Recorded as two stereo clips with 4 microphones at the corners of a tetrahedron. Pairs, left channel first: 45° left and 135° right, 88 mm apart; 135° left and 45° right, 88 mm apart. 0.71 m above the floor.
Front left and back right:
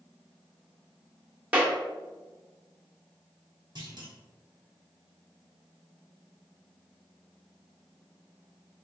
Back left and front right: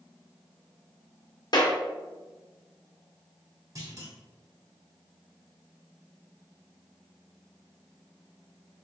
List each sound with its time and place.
1.5 s a clap: 150° left, 1.1 m
3.8 s a clunk: 95° right, 1.1 m